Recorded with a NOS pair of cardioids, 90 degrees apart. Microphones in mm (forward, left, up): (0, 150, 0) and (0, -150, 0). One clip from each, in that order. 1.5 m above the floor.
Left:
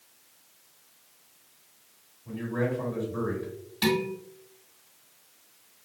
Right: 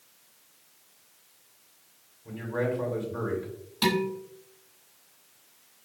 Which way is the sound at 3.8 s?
25° right.